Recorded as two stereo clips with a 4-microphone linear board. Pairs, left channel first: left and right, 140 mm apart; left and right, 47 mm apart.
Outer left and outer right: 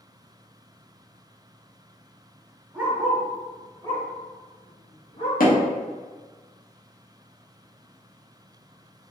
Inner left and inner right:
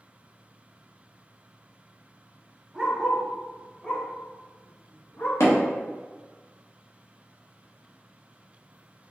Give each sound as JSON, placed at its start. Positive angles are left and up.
{"t": 2.7, "sound": "a dog barking", "side_deg": -10, "distance_m": 1.5}
{"t": 5.4, "sound": "hammering", "side_deg": 70, "distance_m": 1.1}